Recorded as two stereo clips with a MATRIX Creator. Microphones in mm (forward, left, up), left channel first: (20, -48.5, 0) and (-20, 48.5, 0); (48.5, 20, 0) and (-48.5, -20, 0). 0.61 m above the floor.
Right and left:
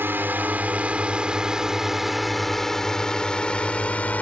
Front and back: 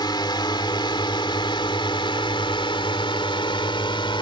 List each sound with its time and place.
0.0 s a drone: 50° left; by 4.2 s 5° left